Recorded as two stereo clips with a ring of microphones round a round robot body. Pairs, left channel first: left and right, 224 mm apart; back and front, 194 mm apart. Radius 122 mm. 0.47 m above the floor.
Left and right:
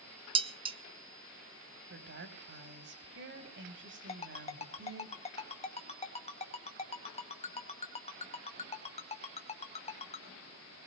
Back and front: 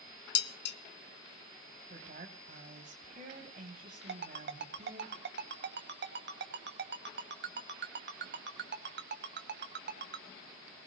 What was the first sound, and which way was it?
Dishes clattering, 155° right.